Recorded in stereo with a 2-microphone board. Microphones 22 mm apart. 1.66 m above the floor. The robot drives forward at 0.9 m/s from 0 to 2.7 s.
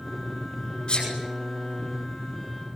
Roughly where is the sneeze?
Left.